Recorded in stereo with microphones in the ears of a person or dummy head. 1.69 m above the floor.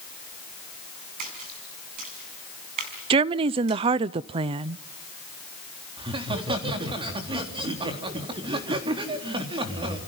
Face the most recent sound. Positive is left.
turn(degrees=-25)  # may be behind; listen again after turning